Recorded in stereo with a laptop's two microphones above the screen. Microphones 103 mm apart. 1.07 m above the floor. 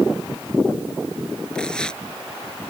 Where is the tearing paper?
5° left (ahead or behind).